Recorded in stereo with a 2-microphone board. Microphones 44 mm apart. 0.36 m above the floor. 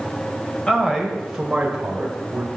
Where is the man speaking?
20° left (ahead or behind), 1.4 m; by 2.5 s 40° right (ahead or behind), 1.4 m.